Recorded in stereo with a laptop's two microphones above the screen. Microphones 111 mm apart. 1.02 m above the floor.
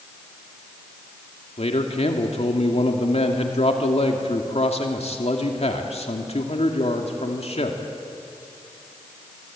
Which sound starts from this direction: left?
A man speaking, at 1.6 s.